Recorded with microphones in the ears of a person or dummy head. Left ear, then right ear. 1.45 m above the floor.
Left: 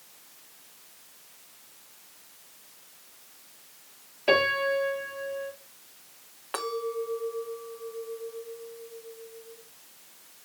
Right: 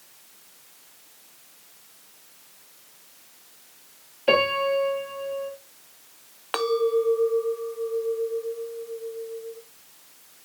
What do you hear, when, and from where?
4.3 s a piano: centre (ahead or behind), 7 m
6.5 s a clink: 35° right (ahead or behind), 1.8 m